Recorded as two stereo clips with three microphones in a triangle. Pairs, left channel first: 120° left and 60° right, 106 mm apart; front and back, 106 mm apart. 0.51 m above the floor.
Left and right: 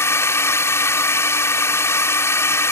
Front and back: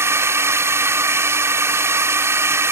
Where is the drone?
150° left.